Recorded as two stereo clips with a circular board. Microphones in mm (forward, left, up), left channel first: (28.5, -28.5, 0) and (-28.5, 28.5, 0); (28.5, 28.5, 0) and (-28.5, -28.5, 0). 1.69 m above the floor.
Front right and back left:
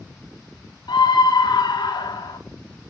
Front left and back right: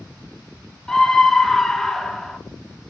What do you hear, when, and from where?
0.9 s a scream: 40° right, 1.5 m